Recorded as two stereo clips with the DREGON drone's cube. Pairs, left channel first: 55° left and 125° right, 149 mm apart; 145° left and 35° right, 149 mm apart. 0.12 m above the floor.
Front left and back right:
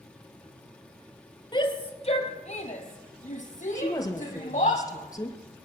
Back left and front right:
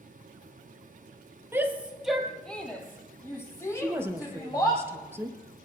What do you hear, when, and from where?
1.5 s a shout: 30° left, 1.6 m; by 4.8 s 80° left, 4 m
3.8 s a woman speaking: 25° left, 1.3 m